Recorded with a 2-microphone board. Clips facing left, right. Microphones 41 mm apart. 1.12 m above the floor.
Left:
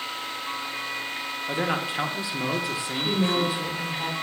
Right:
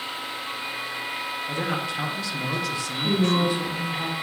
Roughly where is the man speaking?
Centre.